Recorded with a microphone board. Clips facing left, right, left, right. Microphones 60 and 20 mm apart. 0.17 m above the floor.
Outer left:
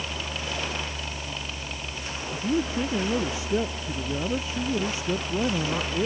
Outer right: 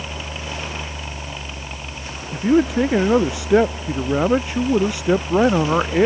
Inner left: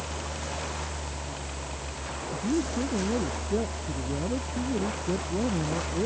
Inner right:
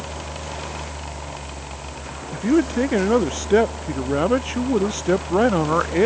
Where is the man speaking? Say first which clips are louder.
Outer right 10 dB, inner right 10 dB; 75° right (ahead or behind).